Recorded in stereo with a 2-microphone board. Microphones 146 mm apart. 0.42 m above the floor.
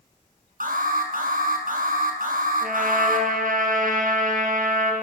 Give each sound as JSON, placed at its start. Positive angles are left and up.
{"t": 0.6, "sound": "an alarm", "side_deg": -70, "distance_m": 6.5}
{"t": 2.6, "sound": "a trumpet", "side_deg": -70, "distance_m": 6.0}